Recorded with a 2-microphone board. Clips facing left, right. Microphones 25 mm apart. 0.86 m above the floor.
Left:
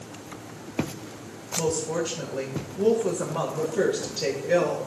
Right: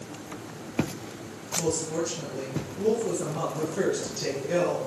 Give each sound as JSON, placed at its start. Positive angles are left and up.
{"t": 1.6, "sound": "a woman speaking", "side_deg": 80, "distance_m": 2.5}